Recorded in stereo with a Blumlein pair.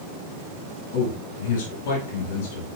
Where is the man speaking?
60° left, 6.5 m.